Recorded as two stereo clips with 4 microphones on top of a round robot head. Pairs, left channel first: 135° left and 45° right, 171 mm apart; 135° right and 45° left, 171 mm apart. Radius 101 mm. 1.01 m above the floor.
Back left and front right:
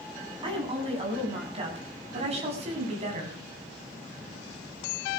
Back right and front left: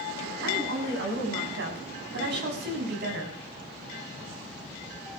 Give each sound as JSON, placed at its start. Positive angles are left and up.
{"t": 0.4, "sound": "a woman speaking", "azimuth_deg": 20, "distance_m": 9.0}